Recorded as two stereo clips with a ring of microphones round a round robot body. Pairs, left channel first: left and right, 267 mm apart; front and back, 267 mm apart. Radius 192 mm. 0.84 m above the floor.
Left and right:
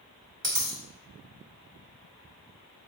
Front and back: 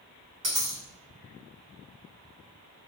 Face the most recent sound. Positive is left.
turn(degrees=-140)